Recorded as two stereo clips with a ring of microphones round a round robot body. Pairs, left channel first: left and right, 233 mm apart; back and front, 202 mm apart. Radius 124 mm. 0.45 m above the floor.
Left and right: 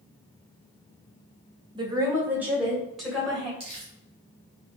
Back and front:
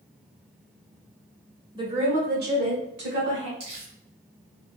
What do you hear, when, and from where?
1.8 s a woman speaking: 45° right, 1.0 m; by 3.5 s 5° left, 2.5 m
3.6 s crumpling: 25° right, 1.8 m